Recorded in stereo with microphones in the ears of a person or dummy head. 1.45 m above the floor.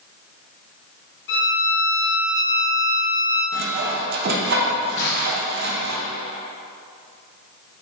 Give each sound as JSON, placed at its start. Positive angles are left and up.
{"t": 1.3, "sound": "a violin", "side_deg": 60, "distance_m": 1.8}
{"t": 3.5, "sound": "sawing", "side_deg": -55, "distance_m": 1.1}
{"t": 5.0, "sound": "crushing", "side_deg": 65, "distance_m": 1.4}